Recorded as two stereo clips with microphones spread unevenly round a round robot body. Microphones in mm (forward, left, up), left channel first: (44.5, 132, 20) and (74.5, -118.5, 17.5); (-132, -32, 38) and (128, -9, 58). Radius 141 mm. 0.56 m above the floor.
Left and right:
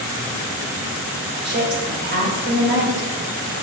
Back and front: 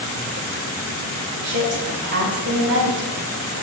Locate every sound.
1.4 s a woman speaking: 40° right, 2 m